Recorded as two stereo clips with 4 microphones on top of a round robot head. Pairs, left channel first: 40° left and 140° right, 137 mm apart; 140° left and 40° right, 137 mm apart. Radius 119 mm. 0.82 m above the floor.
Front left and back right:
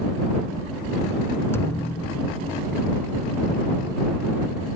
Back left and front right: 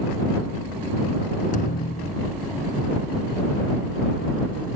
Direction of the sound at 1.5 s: 110° left.